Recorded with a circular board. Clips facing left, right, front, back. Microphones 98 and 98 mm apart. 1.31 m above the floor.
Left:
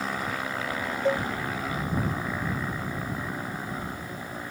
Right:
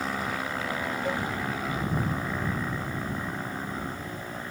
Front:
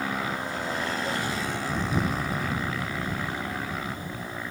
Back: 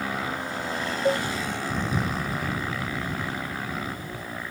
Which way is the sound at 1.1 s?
150° left.